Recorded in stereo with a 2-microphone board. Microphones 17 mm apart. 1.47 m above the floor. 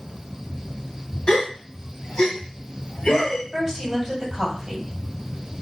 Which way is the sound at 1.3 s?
60° left (ahead or behind).